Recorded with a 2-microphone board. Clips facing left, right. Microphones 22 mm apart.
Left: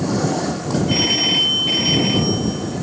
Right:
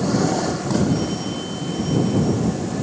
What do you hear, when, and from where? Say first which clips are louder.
0.9 s a phone ringing: left 7 dB; 75° left (ahead or behind)